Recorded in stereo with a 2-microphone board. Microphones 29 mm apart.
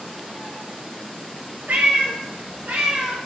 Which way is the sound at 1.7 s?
65° right (ahead or behind).